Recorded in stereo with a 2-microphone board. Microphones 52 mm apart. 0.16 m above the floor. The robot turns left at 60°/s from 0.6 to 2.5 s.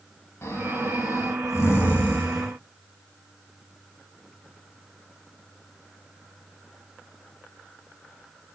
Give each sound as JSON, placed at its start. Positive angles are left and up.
{"t": 0.4, "sound": "snoring", "azimuth_deg": 105, "distance_m": 4.5}